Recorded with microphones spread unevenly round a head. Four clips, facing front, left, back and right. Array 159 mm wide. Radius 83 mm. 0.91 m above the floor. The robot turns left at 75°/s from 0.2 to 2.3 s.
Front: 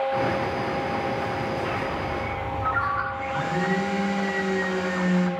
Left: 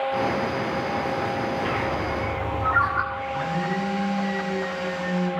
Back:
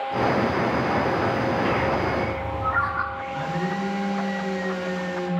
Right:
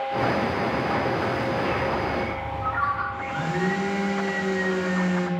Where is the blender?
45° right, 2.5 m.